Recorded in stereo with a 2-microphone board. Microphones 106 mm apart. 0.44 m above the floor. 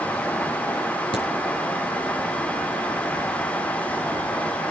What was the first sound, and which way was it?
A crack, 60° left (ahead or behind).